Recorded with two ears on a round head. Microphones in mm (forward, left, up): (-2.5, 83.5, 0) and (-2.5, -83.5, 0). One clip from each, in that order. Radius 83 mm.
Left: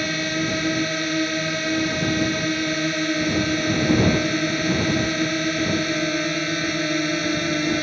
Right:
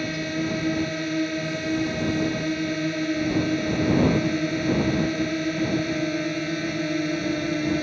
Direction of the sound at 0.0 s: 40° left (ahead or behind).